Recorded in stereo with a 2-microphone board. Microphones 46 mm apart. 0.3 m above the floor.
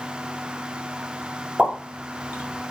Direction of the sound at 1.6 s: 20° right (ahead or behind).